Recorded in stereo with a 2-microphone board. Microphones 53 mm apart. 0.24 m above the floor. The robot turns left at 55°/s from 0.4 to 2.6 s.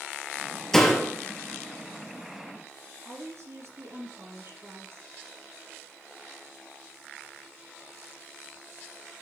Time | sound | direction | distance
0.7 | a door slam | 10° left (ahead or behind) | 4.5 m
3.0 | a woman speaking | 65° right (ahead or behind) | 4.5 m